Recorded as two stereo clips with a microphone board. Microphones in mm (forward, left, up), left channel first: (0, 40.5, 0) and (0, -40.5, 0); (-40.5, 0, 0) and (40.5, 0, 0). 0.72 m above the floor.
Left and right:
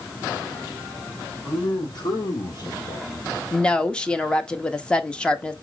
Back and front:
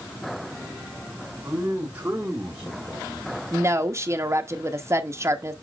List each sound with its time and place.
1.4 s a man speaking: 55° left, 3 m; by 3.4 s 85° left, 1.5 m
3.5 s a woman speaking: 20° left, 0.8 m